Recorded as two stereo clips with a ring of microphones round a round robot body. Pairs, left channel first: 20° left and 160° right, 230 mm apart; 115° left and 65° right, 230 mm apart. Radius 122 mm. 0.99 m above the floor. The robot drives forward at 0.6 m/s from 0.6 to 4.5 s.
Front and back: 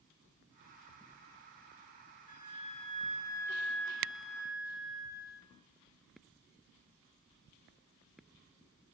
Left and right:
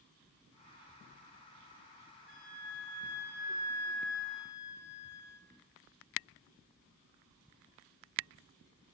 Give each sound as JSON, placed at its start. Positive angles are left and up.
{"t": 2.3, "sound": "a flute", "azimuth_deg": 75, "distance_m": 1.7}